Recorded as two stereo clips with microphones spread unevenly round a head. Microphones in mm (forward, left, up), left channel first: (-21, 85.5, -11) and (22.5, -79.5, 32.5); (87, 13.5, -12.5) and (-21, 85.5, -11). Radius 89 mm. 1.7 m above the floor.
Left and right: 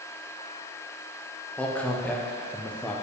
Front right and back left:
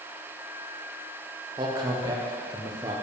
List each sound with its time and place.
1.6 s a man speaking: 160° right, 0.6 m